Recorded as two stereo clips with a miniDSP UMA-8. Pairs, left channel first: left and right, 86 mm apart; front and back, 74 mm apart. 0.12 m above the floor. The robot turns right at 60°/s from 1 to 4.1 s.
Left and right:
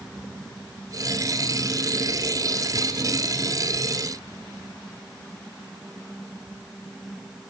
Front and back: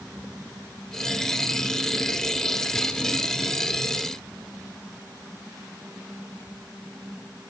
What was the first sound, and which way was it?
Only background noise.